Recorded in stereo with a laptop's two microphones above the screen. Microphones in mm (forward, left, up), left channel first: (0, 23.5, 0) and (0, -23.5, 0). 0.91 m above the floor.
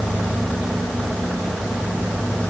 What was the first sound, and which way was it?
Only background noise.